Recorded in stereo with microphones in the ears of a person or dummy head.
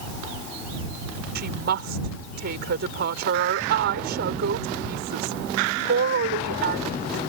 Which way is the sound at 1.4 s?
55° right (ahead or behind).